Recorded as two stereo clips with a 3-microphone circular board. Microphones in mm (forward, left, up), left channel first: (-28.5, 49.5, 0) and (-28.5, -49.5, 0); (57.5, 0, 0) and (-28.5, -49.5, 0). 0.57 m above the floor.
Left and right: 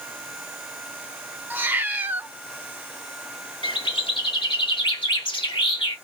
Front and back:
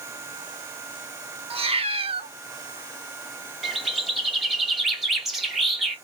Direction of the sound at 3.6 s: 125° left.